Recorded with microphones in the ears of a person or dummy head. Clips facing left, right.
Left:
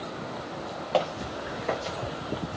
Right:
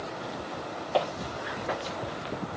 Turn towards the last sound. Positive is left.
turn(degrees=50)  # may be behind; listen again after turning